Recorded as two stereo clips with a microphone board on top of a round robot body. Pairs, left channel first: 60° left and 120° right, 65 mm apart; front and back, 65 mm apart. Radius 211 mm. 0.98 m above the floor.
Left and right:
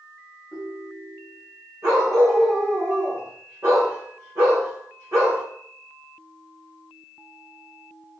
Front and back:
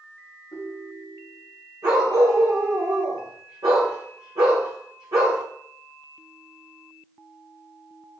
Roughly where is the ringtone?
Ahead.